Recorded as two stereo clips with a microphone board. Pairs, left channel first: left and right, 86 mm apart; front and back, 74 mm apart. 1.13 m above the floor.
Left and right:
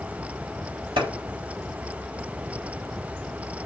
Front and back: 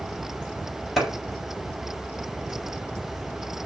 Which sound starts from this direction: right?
A clap, at 1.0 s.